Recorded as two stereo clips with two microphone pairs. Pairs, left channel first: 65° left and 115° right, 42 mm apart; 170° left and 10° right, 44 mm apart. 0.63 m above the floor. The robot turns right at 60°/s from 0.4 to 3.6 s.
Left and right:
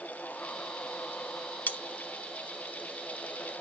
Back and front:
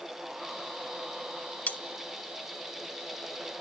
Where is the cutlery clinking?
115° left, 0.8 m; by 1.8 s 120° left, 0.8 m.